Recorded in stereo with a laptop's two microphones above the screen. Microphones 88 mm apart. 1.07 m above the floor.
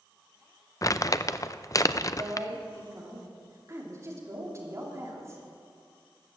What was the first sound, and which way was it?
Crumpling, 40° left (ahead or behind).